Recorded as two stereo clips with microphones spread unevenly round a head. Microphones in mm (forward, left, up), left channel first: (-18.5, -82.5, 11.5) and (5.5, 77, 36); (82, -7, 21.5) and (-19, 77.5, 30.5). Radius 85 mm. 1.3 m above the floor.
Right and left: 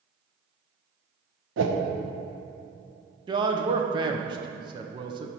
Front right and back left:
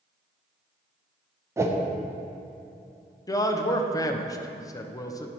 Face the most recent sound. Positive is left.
turn(degrees=15)